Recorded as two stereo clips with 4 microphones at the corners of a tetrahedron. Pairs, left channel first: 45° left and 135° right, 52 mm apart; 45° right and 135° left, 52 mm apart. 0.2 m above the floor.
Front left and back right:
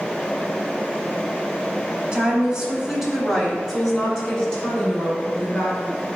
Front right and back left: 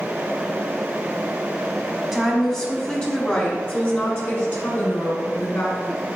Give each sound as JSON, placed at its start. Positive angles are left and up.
{"t": 2.1, "sound": "a woman speaking", "azimuth_deg": -135, "distance_m": 1.2}